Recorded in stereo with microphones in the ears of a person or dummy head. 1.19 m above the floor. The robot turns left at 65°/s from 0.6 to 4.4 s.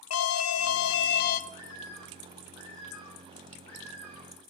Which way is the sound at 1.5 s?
160° left.